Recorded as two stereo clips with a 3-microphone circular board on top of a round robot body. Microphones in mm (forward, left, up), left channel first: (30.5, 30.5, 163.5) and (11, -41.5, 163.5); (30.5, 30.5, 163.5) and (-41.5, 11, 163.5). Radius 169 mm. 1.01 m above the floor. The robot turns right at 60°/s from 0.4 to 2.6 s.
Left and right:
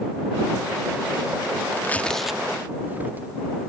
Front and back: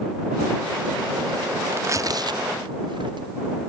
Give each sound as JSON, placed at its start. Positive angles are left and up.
{"t": 1.7, "sound": "tearing paper", "azimuth_deg": 135}